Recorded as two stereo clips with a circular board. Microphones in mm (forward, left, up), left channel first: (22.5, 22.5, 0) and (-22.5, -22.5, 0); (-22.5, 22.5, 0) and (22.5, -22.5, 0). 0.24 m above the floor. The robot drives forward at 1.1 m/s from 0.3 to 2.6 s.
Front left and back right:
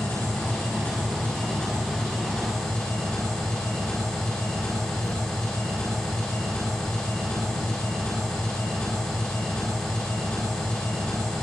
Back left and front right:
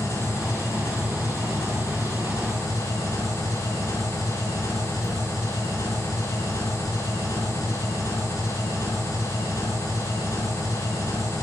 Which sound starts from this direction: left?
An engine running, at 0.0 s.